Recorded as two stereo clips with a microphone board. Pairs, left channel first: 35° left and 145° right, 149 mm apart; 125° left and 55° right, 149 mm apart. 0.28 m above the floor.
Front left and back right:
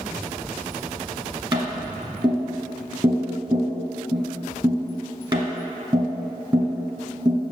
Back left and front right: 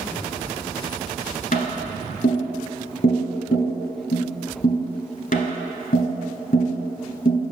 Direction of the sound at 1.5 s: 155° left.